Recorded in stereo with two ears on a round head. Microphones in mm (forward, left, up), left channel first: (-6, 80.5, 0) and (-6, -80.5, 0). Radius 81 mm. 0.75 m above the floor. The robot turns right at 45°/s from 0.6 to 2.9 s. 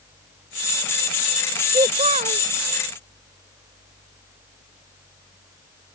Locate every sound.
1.7 s a child speaking: 155° right; by 2.5 s 125° right